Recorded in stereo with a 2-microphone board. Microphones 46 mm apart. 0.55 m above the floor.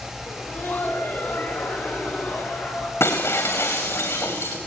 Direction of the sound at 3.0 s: 80° left.